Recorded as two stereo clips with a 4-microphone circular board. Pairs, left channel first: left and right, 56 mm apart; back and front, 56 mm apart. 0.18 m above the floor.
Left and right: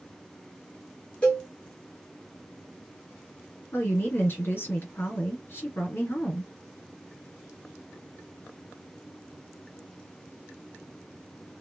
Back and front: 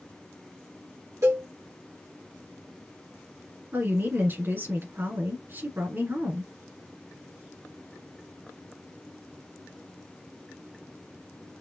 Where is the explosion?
No explosion in this recording.